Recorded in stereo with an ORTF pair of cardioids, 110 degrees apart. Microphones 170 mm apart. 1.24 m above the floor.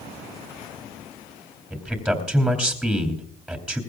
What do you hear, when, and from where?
1.7 s a man speaking: straight ahead, 2.5 m